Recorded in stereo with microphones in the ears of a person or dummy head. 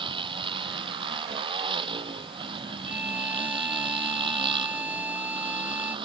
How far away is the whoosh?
No whoosh in this recording.